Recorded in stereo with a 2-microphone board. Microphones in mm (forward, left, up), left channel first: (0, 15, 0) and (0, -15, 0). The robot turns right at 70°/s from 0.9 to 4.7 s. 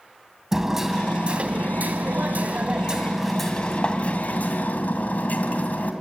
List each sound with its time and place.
0.5 s hammering: 170° right, 2.5 m; by 5.9 s 95° left, 2.5 m